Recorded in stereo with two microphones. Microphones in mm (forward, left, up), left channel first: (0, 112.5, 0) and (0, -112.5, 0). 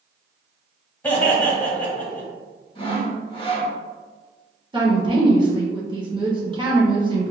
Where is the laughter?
10° left (ahead or behind), 1.9 m.